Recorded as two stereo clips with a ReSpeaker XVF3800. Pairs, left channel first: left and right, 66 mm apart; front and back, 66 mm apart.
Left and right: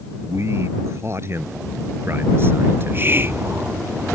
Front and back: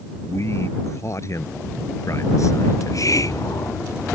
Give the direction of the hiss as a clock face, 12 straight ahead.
1 o'clock.